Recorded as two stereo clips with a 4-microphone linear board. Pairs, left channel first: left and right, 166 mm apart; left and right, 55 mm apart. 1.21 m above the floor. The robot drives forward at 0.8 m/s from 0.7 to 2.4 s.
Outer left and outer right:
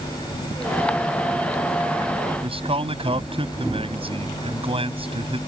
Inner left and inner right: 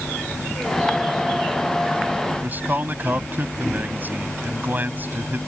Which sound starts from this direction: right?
A man speaking, at 2.4 s.